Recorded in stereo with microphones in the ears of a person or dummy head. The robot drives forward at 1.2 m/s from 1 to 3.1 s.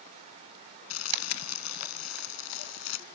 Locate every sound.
0.9 s crumpling: 85° left; by 3.0 s 80° left